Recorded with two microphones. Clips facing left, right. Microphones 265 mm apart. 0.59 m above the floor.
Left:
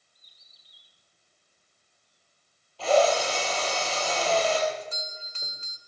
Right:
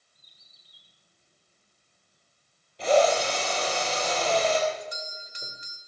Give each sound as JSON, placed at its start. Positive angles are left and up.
{"t": 0.1, "sound": "a bird", "side_deg": -60, "distance_m": 6.0}
{"t": 2.8, "sound": "a drill", "side_deg": -20, "distance_m": 7.0}
{"t": 4.7, "sound": "a doorbell", "side_deg": -15, "distance_m": 2.5}